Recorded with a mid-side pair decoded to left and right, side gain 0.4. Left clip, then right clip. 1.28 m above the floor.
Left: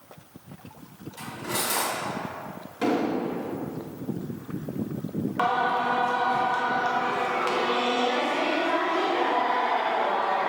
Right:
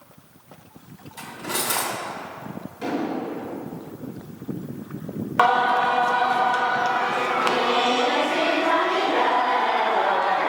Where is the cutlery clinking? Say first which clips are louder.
Right 2 dB; 40° right, 2 m.